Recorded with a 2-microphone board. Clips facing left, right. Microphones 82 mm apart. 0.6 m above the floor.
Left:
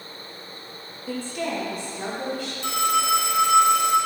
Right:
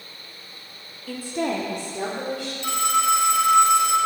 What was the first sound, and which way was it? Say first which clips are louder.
A woman speaking: right 2 dB; 20° left (ahead or behind).